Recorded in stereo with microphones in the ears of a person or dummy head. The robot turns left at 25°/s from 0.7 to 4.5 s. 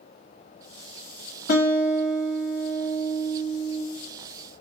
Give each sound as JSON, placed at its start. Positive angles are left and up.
{"t": 1.5, "sound": "a guitar", "azimuth_deg": 140, "distance_m": 0.6}